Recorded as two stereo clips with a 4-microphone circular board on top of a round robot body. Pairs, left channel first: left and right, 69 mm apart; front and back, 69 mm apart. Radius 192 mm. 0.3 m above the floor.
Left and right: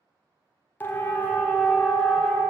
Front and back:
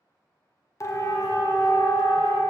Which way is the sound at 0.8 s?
35° left.